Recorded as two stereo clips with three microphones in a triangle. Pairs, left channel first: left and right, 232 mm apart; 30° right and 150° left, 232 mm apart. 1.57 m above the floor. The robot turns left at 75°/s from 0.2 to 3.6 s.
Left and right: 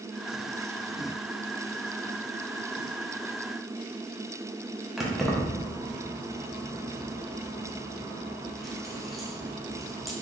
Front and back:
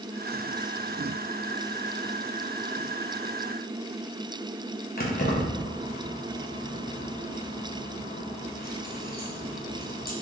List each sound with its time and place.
5.0 s keys jangling: straight ahead, 0.7 m